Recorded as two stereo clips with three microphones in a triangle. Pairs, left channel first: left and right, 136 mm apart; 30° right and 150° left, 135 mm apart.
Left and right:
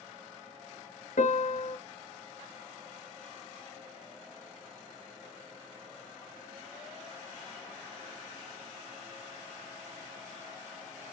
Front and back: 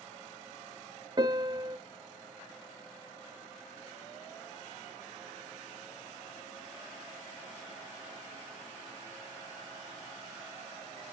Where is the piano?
95° left, 0.7 m.